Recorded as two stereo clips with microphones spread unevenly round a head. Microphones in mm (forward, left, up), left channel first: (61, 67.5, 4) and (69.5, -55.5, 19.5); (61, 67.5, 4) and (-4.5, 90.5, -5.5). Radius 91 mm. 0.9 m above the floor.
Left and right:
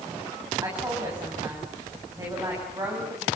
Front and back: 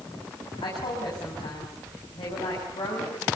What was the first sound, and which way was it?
A woman speaking, 25° right.